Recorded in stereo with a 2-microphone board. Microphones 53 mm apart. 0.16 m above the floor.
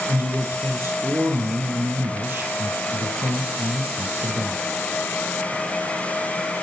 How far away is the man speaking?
About 4.5 m.